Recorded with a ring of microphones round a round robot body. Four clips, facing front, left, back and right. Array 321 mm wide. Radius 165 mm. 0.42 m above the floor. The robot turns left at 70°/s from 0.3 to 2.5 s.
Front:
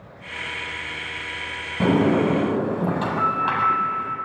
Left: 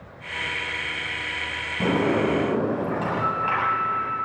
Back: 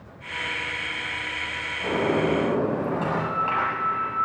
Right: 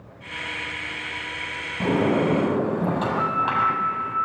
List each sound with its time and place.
1.8 s a sliding door: 5° left, 6 m; by 4.2 s 45° right, 6 m